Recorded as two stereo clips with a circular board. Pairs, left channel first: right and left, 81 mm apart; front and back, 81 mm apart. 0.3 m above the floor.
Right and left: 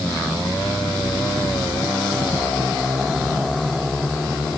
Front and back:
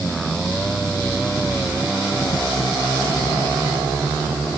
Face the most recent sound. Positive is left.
No sound to turn to.